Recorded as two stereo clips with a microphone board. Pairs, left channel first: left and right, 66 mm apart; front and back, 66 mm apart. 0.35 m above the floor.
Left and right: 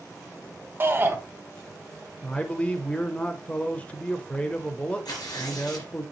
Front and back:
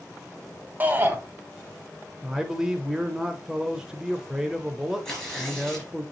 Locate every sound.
0.8 s a shout: 125° right, 1.4 m
2.2 s a man speaking: 120° left, 0.8 m
5.0 s tearing paper: 80° left, 4 m